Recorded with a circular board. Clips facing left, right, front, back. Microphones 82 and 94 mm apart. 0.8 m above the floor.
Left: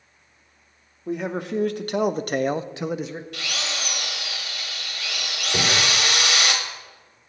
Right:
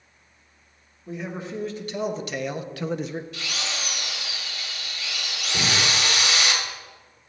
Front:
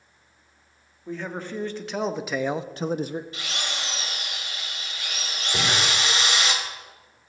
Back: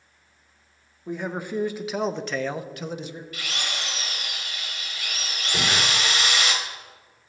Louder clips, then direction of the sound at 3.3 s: Left 2 dB, even; 65° left.